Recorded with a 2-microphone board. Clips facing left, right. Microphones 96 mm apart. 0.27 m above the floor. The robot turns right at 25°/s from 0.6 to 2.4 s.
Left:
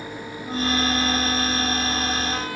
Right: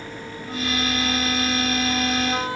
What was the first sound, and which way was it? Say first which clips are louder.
A flute: left 3 dB; 160° left.